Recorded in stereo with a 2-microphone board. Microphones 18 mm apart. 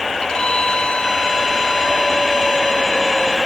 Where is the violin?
50° left (ahead or behind).